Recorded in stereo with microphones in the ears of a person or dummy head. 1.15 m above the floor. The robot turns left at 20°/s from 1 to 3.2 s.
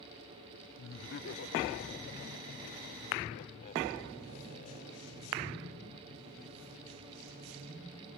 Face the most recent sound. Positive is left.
turn(degrees=40)  # may be behind; listen again after turning